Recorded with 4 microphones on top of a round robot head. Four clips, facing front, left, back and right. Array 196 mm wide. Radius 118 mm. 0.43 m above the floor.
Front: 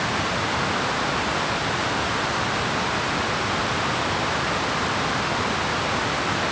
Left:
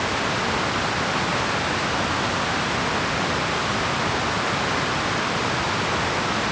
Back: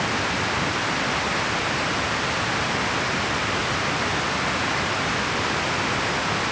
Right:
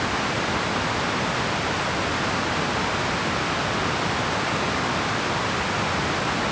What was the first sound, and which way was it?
Only background noise.